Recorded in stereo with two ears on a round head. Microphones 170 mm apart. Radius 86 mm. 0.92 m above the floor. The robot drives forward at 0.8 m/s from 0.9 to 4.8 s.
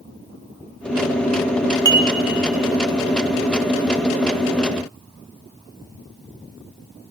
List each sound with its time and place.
1.9 s dishes clattering: 20° right (ahead or behind), 0.7 m; by 2.1 s 25° right (ahead or behind), 0.5 m